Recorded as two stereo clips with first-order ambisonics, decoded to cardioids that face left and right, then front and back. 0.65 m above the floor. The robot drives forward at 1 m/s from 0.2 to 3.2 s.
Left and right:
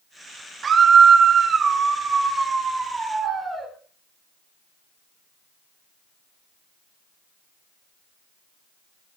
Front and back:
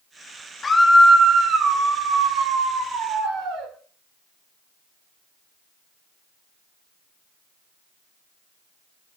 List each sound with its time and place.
0.6 s a scream: 55° right, 1.2 m; by 3.7 s 170° right, 2.5 m